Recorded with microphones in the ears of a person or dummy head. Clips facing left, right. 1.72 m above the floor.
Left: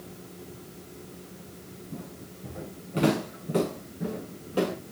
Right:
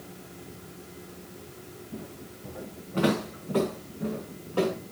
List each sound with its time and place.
1.9 s footsteps: 20° left (ahead or behind), 7 m; by 4.7 s 15° left (ahead or behind), 9.5 m